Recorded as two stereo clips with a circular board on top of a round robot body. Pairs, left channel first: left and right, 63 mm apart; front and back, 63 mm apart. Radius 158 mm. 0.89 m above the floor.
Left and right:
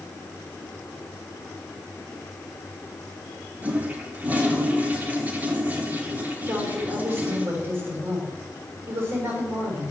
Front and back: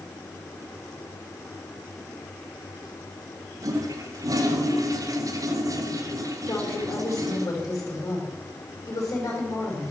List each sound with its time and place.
3.6 s a toilet flushing: 155° right, 2 m
6.5 s a woman speaking: 45° right, 5.5 m